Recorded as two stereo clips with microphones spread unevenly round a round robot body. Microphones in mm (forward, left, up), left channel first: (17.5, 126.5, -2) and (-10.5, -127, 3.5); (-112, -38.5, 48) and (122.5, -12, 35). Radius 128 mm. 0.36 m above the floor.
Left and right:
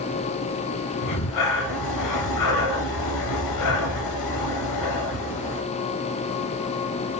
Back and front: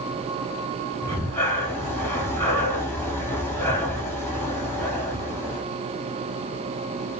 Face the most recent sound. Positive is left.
turn(degrees=105)